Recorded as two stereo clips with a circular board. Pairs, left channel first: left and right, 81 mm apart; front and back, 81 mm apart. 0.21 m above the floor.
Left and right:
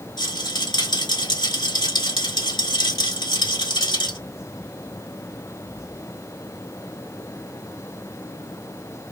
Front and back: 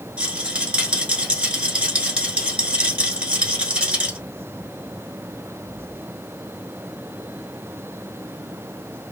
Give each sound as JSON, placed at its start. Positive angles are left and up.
{"t": 0.2, "sound": "a rattle", "azimuth_deg": 105, "distance_m": 1.0}